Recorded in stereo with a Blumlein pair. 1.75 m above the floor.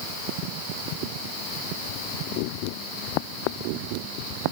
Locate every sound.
Only background noise.